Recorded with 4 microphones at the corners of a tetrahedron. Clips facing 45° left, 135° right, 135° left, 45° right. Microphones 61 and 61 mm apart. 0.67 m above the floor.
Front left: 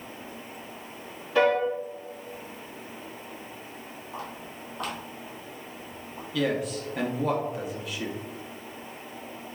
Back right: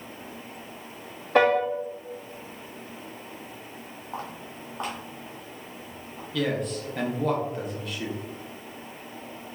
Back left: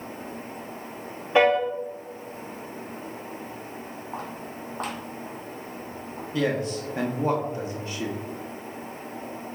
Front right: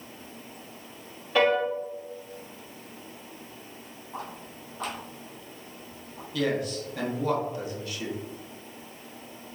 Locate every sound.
1.4 s a piano: 160° right, 1.0 m
4.1 s footsteps: 175° left, 1.7 m; by 6.2 s 90° left, 0.9 m
6.3 s a man speaking: 130° left, 0.7 m